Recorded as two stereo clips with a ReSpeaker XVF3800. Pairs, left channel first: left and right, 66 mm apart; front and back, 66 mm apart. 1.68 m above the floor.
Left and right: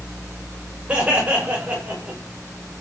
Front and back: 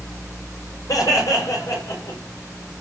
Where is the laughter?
20° right, 9 m; by 2.2 s 25° right, 7.5 m.